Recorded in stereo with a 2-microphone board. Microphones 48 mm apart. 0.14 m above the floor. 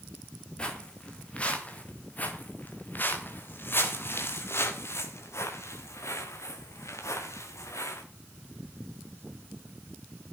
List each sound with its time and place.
0.6 s footsteps: 20° left (ahead or behind), 4.5 m; by 8.0 s 90° left, 4.5 m